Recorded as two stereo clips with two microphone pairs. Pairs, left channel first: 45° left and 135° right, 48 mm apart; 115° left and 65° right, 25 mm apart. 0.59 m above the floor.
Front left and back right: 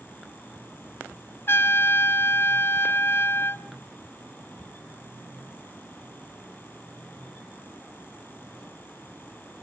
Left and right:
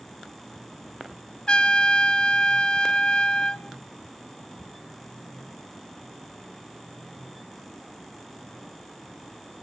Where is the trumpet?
75° left, 1.0 m.